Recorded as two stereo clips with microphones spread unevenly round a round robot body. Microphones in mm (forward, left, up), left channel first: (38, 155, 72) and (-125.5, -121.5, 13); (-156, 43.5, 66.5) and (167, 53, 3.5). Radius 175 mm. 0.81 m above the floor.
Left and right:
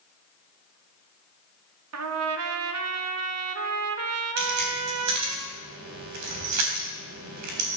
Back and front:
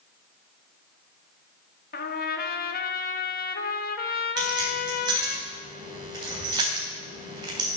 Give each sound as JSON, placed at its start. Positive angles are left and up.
{"t": 1.9, "sound": "a trumpet", "azimuth_deg": -110, "distance_m": 1.3}
{"t": 4.4, "sound": "keys jangling", "azimuth_deg": -75, "distance_m": 3.5}